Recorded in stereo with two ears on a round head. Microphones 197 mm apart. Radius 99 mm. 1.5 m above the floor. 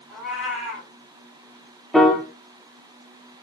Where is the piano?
Centre (ahead or behind), 0.6 m.